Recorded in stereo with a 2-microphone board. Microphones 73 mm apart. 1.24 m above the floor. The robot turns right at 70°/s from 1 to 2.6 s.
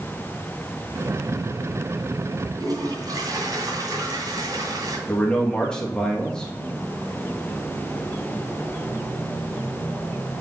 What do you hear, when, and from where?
2.6 s a toilet flushing: 60° right (ahead or behind), 2.5 m
5.1 s a man speaking: 10° left (ahead or behind), 2 m